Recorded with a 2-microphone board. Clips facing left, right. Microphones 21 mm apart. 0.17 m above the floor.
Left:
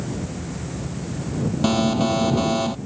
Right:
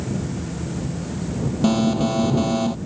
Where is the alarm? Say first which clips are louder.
Right 1 dB; 15° left (ahead or behind).